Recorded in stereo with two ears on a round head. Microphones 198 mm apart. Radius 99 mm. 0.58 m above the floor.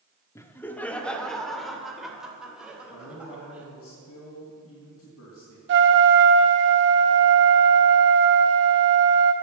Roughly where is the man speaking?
Left.